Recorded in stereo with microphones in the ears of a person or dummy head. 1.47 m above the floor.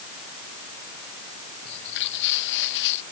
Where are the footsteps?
65° left (ahead or behind).